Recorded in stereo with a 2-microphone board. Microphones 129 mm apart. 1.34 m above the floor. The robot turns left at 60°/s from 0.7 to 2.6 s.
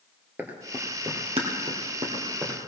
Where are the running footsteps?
15° right (ahead or behind), 1.7 m; by 2.6 s 25° right (ahead or behind), 2.5 m.